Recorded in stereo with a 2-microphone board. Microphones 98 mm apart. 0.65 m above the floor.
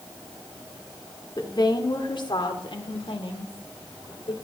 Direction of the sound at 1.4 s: 40° left (ahead or behind).